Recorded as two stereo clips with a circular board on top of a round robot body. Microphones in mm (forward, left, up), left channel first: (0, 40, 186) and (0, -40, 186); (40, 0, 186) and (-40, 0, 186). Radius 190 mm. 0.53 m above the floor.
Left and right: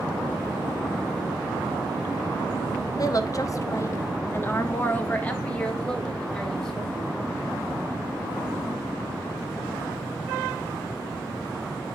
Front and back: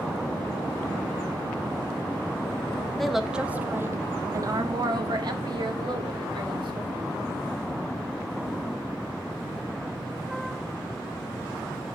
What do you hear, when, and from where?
3.0 s a woman speaking: 85° left, 1.1 m; by 7.1 s 175° left, 3 m